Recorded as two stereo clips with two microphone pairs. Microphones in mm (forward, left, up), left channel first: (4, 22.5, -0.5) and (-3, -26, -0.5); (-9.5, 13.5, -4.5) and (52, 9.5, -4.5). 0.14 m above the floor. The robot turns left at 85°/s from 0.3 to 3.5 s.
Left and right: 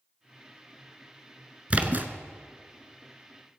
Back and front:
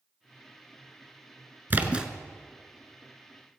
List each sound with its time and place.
1.7 s a splash: 45° right, 1.0 m; by 2.1 s 80° right, 1.0 m